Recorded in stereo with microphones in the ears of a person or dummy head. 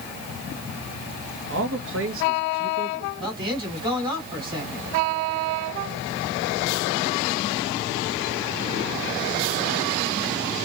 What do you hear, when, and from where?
1.5 s a man speaking: 60° right (ahead or behind), 1.3 m
3.2 s a man speaking: 20° right (ahead or behind), 4 m